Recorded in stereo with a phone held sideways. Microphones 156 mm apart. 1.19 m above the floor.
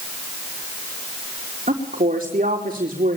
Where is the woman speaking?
50° right (ahead or behind), 4 m.